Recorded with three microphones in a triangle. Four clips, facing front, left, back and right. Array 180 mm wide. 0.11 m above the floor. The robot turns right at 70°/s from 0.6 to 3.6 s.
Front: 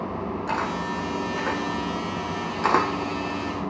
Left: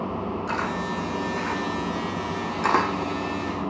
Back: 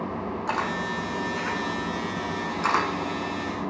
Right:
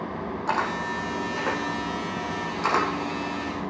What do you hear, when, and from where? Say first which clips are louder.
0.5 s a camera shutter: right 4 dB, even; 120° right, 4 m; by 2.9 s 45° left, 4 m